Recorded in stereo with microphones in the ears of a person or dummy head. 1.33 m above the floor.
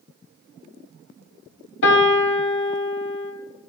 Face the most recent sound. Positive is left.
turn(degrees=65)  # may be behind; listen again after turning